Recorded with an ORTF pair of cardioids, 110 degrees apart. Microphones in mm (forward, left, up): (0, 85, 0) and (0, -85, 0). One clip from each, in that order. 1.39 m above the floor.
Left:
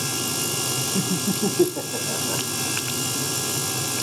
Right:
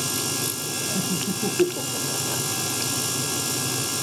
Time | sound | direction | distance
0.9 | laughter | 15° left | 0.8 m